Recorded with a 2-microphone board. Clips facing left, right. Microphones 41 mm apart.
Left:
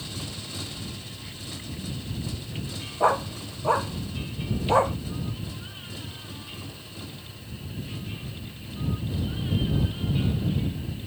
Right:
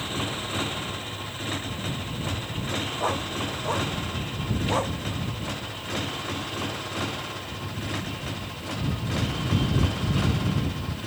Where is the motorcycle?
50° right (ahead or behind); by 11.1 s 80° right.